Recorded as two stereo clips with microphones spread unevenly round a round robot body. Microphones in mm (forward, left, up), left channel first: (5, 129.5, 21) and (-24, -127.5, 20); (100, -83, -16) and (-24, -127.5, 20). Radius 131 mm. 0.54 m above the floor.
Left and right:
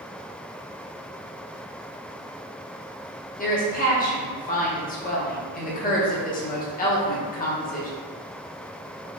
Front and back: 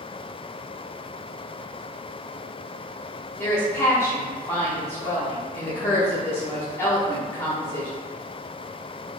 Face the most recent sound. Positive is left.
turn(degrees=50)